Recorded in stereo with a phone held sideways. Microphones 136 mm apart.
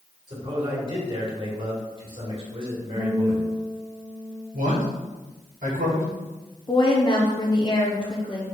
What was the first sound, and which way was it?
A man speaking, 40° right (ahead or behind).